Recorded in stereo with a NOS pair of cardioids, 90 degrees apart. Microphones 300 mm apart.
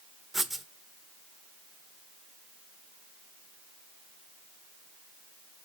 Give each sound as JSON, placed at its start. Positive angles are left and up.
{"t": 0.3, "sound": "writing", "azimuth_deg": 0, "distance_m": 0.9}